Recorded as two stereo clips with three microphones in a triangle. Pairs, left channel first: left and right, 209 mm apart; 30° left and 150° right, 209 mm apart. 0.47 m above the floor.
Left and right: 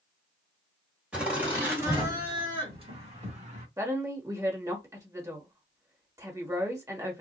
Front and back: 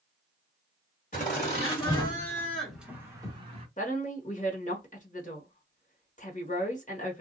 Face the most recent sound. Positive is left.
turn(degrees=-15)